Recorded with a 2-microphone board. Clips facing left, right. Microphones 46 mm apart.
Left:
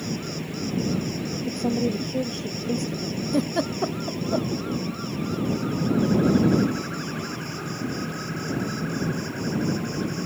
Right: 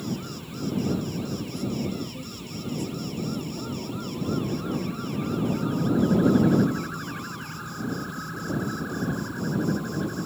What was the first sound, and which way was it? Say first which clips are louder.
An insect: left 2 dB; 60° left (ahead or behind).